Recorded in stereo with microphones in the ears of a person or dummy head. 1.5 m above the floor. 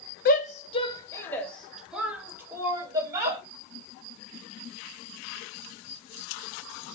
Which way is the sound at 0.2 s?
50° left (ahead or behind).